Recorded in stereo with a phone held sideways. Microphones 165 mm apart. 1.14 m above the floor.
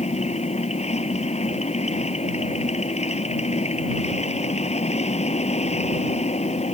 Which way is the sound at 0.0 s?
40° left (ahead or behind).